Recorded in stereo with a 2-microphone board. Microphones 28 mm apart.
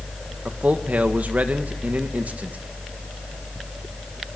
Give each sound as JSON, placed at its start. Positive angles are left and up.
{"t": 0.5, "sound": "a man speaking", "side_deg": -75, "distance_m": 1.8}